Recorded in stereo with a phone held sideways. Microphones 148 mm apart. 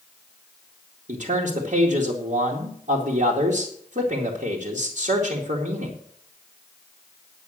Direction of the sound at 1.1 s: 60° right (ahead or behind).